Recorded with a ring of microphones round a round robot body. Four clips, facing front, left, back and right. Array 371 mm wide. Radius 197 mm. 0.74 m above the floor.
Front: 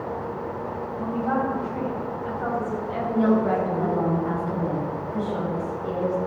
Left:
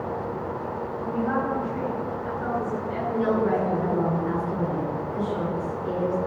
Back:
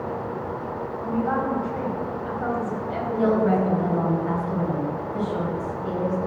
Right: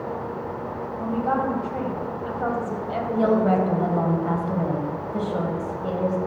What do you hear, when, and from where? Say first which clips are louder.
1.0 s a woman speaking: right 3 dB, even; 90° right, 3.5 m
3.1 s a woman speaking: right 4 dB, back 1 dB; 90° right, 4 m